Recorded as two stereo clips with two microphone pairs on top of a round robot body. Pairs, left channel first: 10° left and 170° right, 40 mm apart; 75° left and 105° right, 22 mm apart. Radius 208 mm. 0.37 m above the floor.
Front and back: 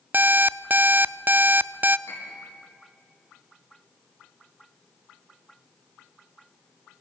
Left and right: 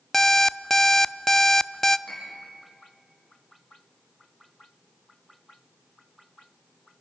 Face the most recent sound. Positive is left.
turn(degrees=-5)